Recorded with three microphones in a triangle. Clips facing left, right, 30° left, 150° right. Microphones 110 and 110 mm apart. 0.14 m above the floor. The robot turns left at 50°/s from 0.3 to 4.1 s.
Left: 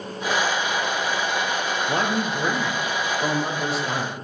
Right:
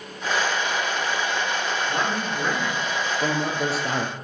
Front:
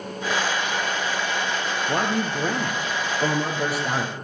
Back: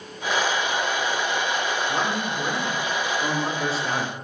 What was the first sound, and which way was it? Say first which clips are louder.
A man speaking: left 2 dB, front 2 dB; 45° left.